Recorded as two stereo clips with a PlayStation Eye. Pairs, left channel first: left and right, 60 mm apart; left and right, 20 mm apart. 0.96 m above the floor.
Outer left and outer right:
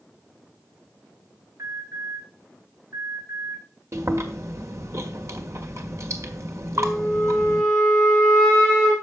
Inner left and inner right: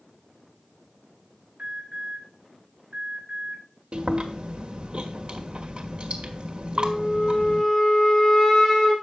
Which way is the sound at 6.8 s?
15° left (ahead or behind).